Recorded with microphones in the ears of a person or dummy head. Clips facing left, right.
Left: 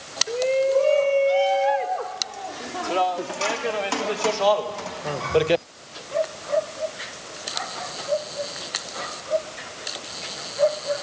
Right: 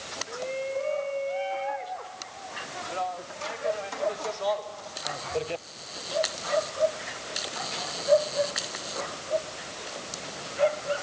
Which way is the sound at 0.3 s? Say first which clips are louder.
Left 12 dB; 75° left (ahead or behind).